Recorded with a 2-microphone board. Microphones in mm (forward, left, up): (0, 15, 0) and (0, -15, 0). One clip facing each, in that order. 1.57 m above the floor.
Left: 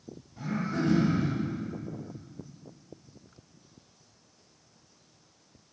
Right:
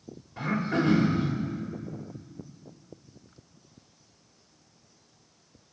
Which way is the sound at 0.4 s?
55° right (ahead or behind).